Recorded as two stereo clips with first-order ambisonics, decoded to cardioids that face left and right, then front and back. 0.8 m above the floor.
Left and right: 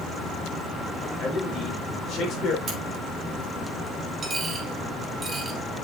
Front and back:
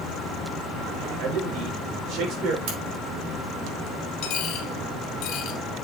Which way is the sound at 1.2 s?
155° left.